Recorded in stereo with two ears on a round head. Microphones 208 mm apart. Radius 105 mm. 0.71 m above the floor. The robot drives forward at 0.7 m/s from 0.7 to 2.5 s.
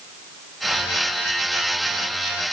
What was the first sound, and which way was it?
Only background noise.